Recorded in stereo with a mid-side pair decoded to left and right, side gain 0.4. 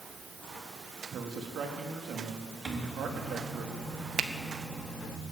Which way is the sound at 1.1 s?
70° right.